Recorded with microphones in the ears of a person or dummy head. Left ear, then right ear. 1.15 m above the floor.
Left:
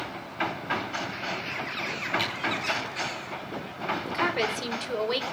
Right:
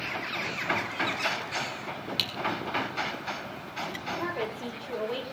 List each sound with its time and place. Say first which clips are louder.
2.2 s typing on a keyboard: right 3 dB; 35° right (ahead or behind), 6 m
4.1 s a woman speaking: left 6 dB; 65° left (ahead or behind), 3.5 m